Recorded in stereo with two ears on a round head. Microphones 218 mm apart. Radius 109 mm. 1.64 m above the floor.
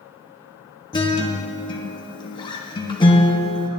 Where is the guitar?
20° left (ahead or behind), 1.3 m.